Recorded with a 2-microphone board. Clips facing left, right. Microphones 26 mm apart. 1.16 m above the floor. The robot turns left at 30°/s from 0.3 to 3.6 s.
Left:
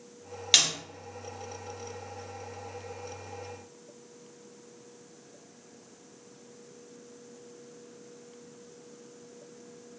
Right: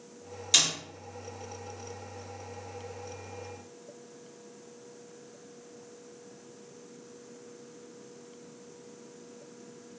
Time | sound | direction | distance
0.5 | a snare drum | 40° left (ahead or behind) | 1.2 m